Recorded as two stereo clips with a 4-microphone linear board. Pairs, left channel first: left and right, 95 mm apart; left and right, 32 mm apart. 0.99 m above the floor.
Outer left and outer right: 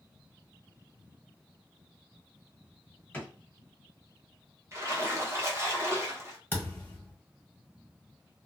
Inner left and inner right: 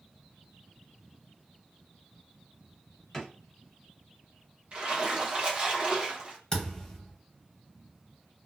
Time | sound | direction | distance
3.1 | a drawer | 15° left (ahead or behind) | 1.4 m
4.7 | a splash | 30° right (ahead or behind) | 0.9 m
6.5 | a thud | 20° left (ahead or behind) | 1.5 m